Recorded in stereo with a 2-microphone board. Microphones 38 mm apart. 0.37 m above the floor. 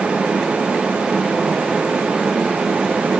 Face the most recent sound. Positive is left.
No sound to turn to.